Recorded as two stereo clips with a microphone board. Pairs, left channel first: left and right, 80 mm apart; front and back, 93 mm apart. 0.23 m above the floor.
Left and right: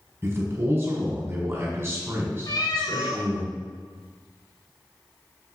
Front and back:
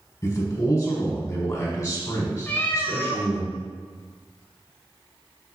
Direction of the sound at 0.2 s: 45° right.